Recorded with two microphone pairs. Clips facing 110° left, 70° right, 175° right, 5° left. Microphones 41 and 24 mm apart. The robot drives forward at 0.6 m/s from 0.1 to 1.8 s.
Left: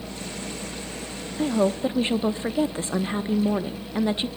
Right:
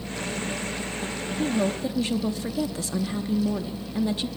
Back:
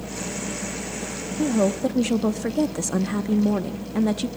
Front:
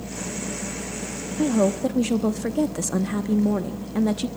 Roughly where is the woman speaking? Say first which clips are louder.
Left 4 dB, front 1 dB; ahead left.